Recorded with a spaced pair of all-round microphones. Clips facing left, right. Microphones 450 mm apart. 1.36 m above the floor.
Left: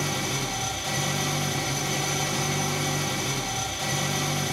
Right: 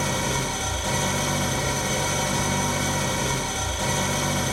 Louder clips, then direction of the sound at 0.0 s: Right 3 dB; 65° right (ahead or behind).